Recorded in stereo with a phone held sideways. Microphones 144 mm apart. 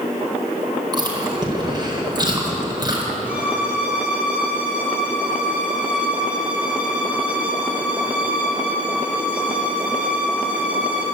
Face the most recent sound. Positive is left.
turn(degrees=-10)  # may be behind; listen again after turning